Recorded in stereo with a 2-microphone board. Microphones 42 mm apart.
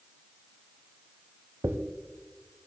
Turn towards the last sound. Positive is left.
turn(degrees=-85)